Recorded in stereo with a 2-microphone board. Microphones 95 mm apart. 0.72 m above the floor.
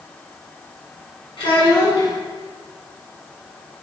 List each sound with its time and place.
1.4 s a child speaking: 60° left (ahead or behind), 1.5 m